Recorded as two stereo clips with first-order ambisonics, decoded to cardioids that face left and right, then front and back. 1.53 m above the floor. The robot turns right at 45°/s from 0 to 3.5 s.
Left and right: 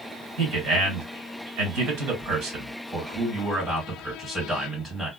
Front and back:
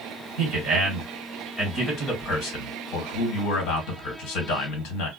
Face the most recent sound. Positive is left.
turn(degrees=5)